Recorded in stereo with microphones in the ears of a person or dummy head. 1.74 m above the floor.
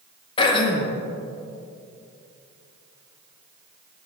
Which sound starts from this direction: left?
Throat clearing, at 0.4 s.